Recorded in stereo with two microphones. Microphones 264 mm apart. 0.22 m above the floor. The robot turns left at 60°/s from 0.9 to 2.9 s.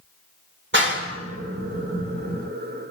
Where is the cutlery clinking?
No cutlery clinking in this recording.